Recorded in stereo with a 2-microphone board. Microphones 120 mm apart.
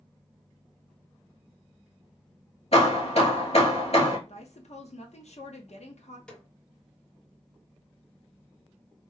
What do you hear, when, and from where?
2.7 s hammering: 60° left (ahead or behind), 1.9 m
4.3 s a woman speaking: 65° left (ahead or behind), 0.9 m
6.3 s a snare drum: 5° left (ahead or behind), 0.8 m